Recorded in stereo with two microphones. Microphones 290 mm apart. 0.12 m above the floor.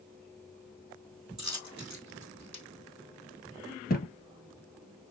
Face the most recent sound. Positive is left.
turn(degrees=35)  # may be behind; listen again after turning